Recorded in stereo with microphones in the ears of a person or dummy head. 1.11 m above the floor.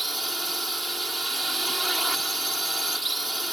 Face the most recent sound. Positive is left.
turn(degrees=-5)  # may be behind; listen again after turning